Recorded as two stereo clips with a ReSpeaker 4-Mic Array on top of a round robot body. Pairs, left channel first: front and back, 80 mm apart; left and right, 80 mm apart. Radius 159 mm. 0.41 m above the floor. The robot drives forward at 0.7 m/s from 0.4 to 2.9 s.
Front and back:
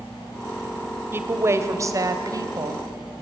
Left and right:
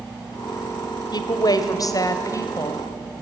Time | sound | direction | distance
1.1 | a woman speaking | 120° left | 2 m